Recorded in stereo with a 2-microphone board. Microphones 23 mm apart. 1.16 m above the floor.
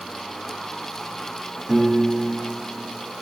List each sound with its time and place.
1.7 s a piano: 25° right (ahead or behind), 1.9 m